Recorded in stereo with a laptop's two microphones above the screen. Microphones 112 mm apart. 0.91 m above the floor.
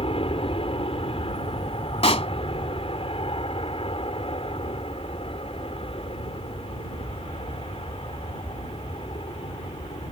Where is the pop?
60° left (ahead or behind).